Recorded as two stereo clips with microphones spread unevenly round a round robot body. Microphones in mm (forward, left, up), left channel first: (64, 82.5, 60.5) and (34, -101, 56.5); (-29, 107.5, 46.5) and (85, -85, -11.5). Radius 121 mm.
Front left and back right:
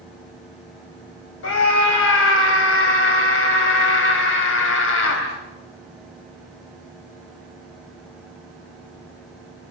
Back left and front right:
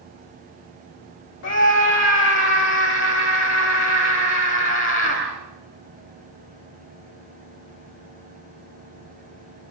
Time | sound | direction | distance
1.4 | a scream | 85° left | 3 m